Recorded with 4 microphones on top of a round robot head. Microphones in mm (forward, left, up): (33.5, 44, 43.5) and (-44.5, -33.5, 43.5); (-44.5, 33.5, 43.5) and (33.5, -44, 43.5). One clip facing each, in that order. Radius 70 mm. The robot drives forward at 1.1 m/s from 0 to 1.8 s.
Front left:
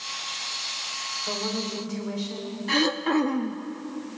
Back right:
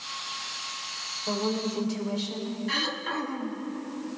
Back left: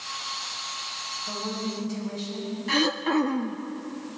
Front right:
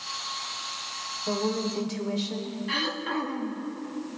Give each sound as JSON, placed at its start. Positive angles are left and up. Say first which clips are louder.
{"t": 1.3, "sound": "a woman speaking", "louder": "back right 3 dB, front right 5 dB", "azimuth_deg": -60, "distance_m": 3.0}
{"t": 2.7, "sound": "throat clearing", "louder": "front left 9 dB, back left 8 dB", "azimuth_deg": 85, "distance_m": 0.7}